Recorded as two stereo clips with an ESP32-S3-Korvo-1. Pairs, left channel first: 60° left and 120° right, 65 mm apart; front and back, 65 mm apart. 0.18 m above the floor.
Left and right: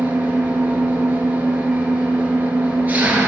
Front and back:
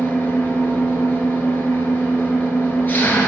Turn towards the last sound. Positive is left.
turn(degrees=-55)